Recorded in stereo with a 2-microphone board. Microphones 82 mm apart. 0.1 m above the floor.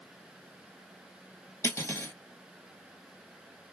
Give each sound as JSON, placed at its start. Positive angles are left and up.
{"t": 1.6, "sound": "cutlery clinking", "side_deg": 30, "distance_m": 1.2}